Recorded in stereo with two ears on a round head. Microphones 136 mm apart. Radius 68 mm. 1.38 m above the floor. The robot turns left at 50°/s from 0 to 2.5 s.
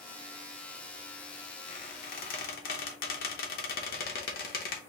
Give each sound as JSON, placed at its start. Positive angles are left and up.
{"t": 1.7, "sound": "a squeak", "side_deg": 50, "distance_m": 0.9}